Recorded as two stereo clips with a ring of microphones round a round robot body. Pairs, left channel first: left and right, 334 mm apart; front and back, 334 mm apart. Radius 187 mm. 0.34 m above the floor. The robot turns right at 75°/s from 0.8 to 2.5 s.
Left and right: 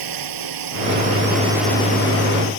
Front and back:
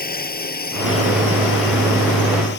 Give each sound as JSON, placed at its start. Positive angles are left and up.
{"t": 0.0, "sound": "a drone", "azimuth_deg": -65}